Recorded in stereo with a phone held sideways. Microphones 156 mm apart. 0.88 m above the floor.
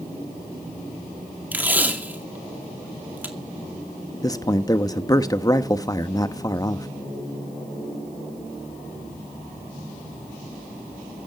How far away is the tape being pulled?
About 2 m.